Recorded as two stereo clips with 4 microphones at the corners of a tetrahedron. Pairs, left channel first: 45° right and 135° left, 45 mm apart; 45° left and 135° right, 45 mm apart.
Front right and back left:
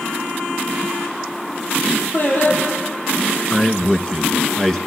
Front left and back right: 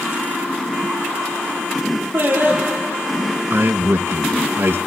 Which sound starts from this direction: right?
Singing, at 2.1 s.